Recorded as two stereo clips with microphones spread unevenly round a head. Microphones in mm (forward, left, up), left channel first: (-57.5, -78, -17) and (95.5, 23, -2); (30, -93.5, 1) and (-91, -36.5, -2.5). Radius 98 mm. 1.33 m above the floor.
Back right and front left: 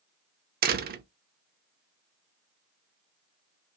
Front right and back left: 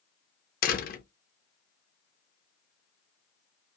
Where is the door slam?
5° right, 0.6 m.